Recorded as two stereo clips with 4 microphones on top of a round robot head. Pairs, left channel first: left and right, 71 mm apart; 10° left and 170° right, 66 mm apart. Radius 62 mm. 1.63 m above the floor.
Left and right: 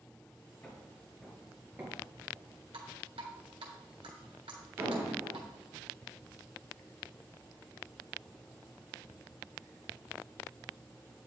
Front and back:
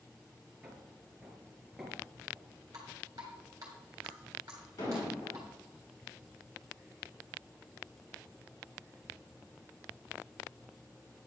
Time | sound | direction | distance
0.6 | footsteps | 145° left | 1.7 m
2.7 | dripping | 115° right | 2 m
4.8 | an explosion | 30° right | 4 m